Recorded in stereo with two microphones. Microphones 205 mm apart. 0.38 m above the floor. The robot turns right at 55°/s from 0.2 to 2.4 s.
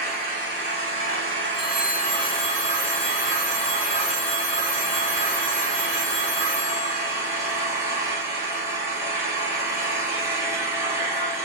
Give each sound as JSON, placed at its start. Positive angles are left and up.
{"t": 0.0, "sound": "an engine running", "azimuth_deg": -135, "distance_m": 2.0}
{"t": 1.5, "sound": "a phone ringing", "azimuth_deg": 175, "distance_m": 1.6}